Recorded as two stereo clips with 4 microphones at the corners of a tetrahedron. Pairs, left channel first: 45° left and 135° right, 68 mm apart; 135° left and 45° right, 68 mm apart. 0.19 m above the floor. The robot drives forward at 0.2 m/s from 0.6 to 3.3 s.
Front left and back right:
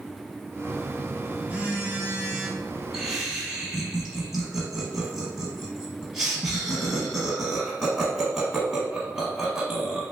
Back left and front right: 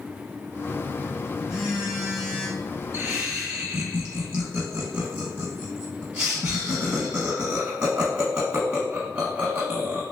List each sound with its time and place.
0.7 s a phone buzzing: 95° right, 1.5 m; by 2.8 s 125° right, 1.6 m
2.9 s laughter: 60° right, 1.1 m; by 10.0 s 70° right, 1.0 m